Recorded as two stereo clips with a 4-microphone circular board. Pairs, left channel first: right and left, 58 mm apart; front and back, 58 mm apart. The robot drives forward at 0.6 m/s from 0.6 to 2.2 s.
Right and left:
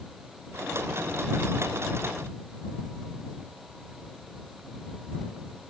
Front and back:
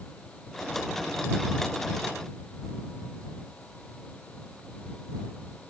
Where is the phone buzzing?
No phone buzzing in this recording.